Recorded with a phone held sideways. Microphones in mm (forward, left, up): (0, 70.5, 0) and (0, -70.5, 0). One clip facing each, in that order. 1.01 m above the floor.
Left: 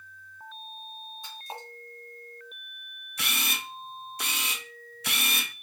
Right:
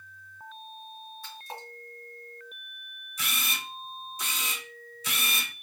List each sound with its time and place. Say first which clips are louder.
1.2 s a splash: left 2 dB; 20° left (ahead or behind), 1.2 m
3.2 s a camera shutter: left 1 dB; 70° left (ahead or behind), 0.5 m